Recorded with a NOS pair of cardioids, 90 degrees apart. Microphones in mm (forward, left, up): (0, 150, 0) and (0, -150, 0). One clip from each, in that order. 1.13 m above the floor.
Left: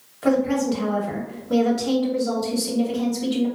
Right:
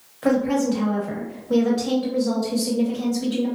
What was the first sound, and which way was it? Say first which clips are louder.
A woman speaking: even; straight ahead.